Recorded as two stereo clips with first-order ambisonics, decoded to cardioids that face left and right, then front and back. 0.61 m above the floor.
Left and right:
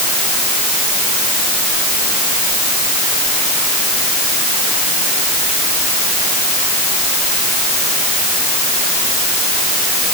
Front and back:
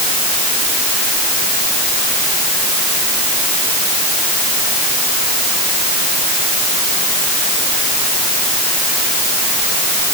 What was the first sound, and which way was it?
Only background noise.